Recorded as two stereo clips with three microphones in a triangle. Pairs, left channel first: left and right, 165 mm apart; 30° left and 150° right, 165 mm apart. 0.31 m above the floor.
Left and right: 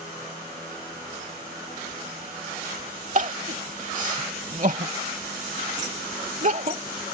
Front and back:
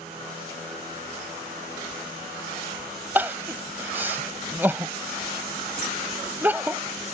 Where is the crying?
75° right.